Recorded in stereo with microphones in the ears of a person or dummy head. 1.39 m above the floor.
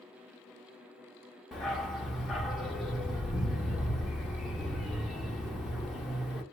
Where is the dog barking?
Centre (ahead or behind), 0.9 m.